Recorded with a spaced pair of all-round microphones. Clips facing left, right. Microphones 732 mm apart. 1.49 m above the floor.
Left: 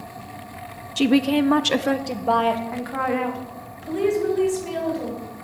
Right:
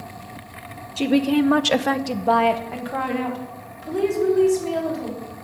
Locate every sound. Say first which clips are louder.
1.0 s a woman speaking: even; 55° left (ahead or behind), 0.6 m; by 5.2 s 70° right (ahead or behind), 3.5 m